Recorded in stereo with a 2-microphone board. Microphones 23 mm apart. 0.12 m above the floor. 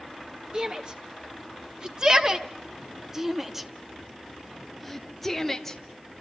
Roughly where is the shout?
Right.